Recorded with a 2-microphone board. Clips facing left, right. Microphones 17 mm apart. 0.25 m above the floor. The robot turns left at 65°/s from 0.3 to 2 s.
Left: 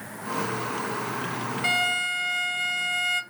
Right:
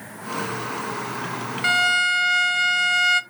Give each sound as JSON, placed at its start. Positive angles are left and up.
{"t": 1.6, "sound": "a violin", "side_deg": -25, "distance_m": 0.6}